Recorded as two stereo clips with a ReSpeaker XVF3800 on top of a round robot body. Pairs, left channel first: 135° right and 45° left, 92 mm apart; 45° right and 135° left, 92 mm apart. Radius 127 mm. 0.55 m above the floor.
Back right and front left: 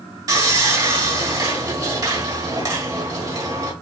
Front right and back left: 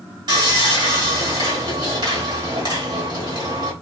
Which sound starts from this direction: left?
Sawing, at 0.3 s.